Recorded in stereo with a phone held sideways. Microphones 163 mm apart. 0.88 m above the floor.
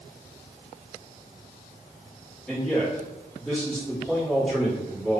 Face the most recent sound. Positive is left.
turn(degrees=5)  # may be behind; listen again after turning